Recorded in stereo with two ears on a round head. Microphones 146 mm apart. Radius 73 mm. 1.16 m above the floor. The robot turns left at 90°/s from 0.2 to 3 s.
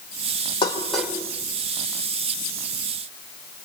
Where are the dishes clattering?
30° left (ahead or behind), 3 m; by 1.2 s 20° right (ahead or behind), 3 m.